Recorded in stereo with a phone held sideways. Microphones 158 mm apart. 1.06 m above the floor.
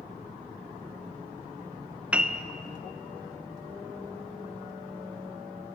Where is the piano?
10° right (ahead or behind), 0.5 m.